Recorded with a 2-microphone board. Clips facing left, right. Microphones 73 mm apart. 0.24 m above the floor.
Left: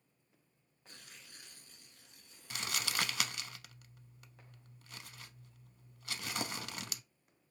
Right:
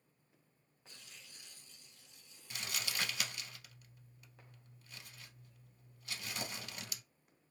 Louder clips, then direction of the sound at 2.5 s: Left 4 dB; 65° left (ahead or behind).